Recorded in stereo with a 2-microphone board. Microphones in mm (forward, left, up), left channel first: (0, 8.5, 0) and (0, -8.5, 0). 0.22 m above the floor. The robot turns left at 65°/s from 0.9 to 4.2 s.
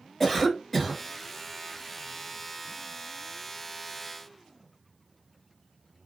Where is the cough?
15° left (ahead or behind), 1.0 m; by 1.0 s 10° left (ahead or behind), 1.0 m.